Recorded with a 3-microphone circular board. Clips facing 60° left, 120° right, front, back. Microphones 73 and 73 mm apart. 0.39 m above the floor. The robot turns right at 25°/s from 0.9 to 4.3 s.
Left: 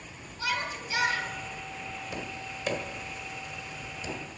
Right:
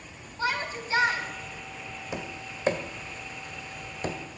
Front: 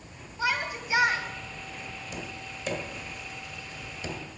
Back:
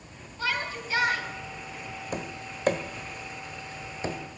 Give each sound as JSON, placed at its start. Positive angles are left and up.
{"t": 0.4, "sound": "a shout", "azimuth_deg": -70, "distance_m": 2.5}
{"t": 2.1, "sound": "tapping", "azimuth_deg": 180, "distance_m": 1.6}